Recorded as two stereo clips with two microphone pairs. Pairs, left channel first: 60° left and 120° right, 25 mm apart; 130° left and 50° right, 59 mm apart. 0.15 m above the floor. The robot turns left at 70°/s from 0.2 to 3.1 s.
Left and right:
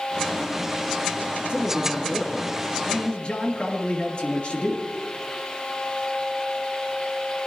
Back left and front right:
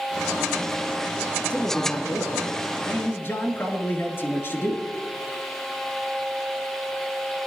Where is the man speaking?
160° right, 3 m; by 4.8 s 85° left, 3 m.